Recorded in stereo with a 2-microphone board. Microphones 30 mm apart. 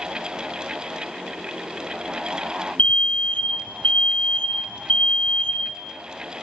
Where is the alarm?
45° left (ahead or behind), 1.4 m.